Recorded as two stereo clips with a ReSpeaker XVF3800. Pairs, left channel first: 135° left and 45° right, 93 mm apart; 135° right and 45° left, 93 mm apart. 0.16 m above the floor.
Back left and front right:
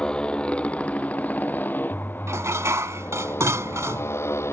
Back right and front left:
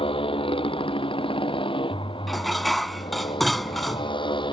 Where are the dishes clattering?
45° right.